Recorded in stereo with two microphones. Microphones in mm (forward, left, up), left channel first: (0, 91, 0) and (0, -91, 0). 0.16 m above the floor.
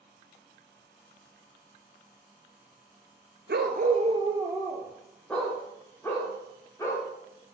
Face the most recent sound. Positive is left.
turn(degrees=15)  # may be behind; listen again after turning